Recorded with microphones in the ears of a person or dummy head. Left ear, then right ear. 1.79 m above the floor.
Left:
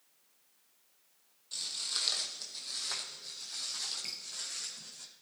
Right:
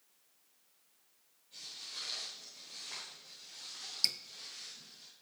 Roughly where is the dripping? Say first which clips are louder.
Right 9 dB; right.